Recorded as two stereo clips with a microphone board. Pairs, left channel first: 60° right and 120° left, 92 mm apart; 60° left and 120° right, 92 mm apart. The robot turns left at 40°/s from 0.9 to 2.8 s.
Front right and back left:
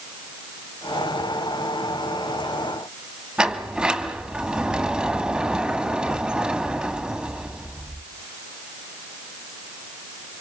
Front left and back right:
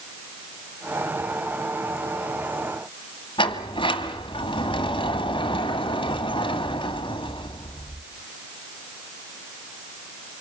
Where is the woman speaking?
No woman speaking in this recording.